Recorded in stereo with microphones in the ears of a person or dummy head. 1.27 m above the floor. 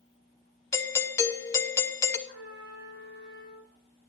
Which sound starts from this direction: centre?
A doorbell, at 0.7 s.